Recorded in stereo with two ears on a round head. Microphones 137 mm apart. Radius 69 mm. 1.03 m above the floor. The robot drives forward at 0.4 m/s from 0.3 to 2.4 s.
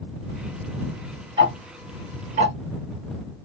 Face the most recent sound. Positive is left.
turn(degrees=-45)  # may be behind; listen again after turning